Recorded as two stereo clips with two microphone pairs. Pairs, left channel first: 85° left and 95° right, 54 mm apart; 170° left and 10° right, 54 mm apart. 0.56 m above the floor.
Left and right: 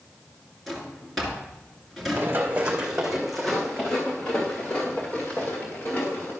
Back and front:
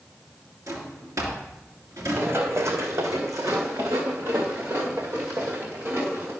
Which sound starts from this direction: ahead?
A drawer, at 0.7 s.